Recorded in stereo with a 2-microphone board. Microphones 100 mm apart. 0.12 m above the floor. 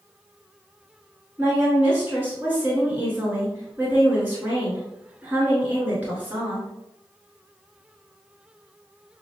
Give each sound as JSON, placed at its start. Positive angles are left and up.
{"t": 1.4, "sound": "a woman speaking", "side_deg": -15, "distance_m": 1.4}